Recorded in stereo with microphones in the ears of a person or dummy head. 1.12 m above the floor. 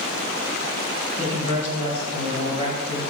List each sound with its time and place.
1.2 s a man speaking: 40° left (ahead or behind), 5.5 m